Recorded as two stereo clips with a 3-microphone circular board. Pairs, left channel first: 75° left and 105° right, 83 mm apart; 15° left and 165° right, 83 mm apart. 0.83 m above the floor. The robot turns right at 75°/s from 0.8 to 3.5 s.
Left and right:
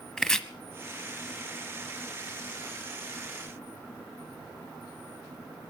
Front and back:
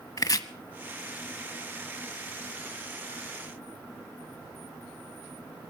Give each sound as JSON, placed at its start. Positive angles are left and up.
{"t": 0.2, "sound": "chopping", "azimuth_deg": -10, "distance_m": 0.9}